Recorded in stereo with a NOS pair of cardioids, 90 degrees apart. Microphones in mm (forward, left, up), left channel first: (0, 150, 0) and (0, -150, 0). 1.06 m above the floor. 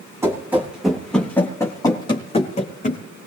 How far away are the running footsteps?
About 3.5 m.